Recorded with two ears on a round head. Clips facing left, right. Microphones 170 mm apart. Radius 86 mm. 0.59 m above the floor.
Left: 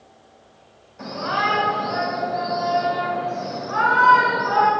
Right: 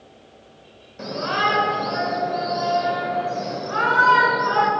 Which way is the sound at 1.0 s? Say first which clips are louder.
Right 1 dB; 40° right (ahead or behind).